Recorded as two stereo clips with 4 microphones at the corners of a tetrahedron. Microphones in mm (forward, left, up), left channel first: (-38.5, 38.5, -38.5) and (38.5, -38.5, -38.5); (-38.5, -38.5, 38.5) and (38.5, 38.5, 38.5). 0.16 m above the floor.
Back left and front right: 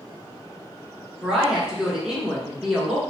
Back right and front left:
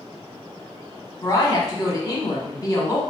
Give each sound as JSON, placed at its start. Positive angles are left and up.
{"t": 1.2, "sound": "a woman speaking", "azimuth_deg": -125, "distance_m": 1.1}